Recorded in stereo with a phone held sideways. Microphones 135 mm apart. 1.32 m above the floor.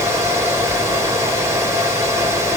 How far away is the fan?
About 4 m.